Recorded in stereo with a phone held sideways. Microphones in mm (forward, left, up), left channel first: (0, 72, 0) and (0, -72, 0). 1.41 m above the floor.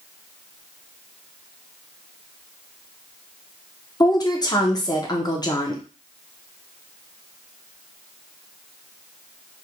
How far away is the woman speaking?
About 0.6 m.